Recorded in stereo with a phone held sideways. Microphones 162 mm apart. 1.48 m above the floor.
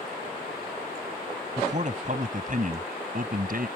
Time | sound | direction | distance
1.6 | a man speaking | 45° right (ahead or behind) | ?